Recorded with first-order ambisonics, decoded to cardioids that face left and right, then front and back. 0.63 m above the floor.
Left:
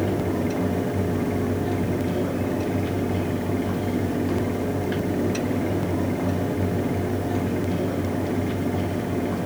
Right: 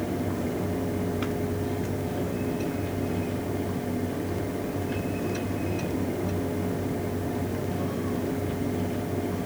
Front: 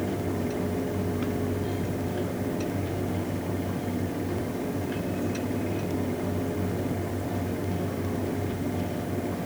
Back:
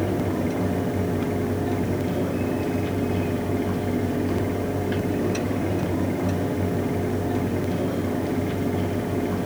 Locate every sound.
Only background noise.